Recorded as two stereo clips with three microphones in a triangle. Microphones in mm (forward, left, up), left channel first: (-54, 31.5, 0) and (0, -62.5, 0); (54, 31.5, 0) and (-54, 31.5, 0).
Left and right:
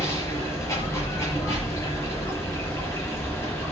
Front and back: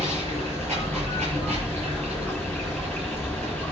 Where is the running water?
Straight behind, 7 m.